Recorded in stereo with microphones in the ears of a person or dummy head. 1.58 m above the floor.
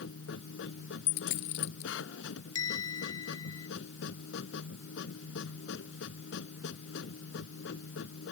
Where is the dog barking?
No dog barking in this recording.